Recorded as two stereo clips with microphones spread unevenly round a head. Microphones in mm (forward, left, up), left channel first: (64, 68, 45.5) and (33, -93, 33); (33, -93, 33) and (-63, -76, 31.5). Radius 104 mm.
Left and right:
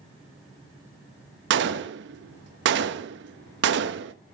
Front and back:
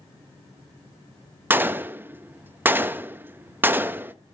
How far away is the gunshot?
About 0.6 m.